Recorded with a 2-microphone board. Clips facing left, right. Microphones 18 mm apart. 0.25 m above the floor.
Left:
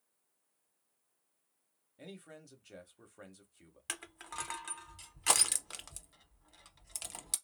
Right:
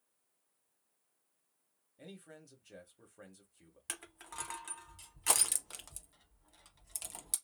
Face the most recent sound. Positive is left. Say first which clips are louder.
# left 3 dB
turn(degrees=20)  # may be behind; listen again after turning